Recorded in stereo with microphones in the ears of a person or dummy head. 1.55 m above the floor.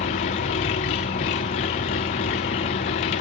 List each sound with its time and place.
0.0 s an engine running: 25° left (ahead or behind), 0.8 m